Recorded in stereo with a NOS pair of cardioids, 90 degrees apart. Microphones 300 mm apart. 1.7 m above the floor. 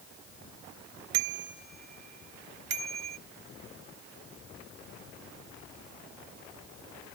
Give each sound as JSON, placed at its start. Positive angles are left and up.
{"t": 1.1, "sound": "a bicycle bell", "azimuth_deg": -70}